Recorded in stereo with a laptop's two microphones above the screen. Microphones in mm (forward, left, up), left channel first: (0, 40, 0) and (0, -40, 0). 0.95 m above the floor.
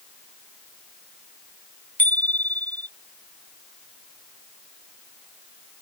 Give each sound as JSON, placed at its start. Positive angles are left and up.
{"t": 2.0, "sound": "a bicycle bell", "side_deg": 20}